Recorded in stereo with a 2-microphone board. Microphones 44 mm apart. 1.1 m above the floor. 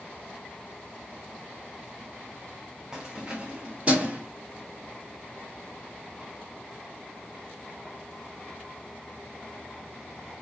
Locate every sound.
2.9 s keys jangling: 15° right (ahead or behind), 0.9 m; by 4.2 s 35° right (ahead or behind), 1.4 m